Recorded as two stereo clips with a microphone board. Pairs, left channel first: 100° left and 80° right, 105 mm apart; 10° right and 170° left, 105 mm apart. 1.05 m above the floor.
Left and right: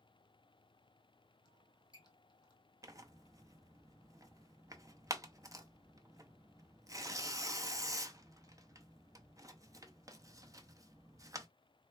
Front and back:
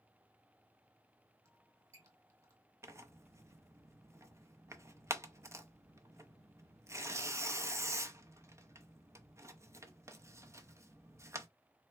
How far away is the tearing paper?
About 0.5 m.